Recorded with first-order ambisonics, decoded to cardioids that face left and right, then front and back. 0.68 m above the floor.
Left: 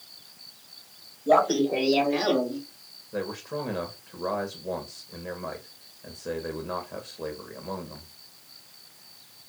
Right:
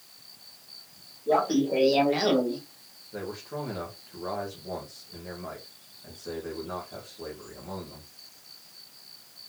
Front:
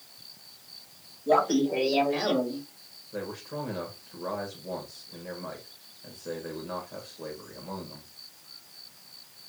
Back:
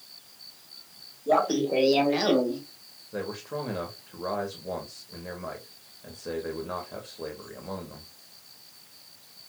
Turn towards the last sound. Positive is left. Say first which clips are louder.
# left 4 dB, back 2 dB
turn(degrees=125)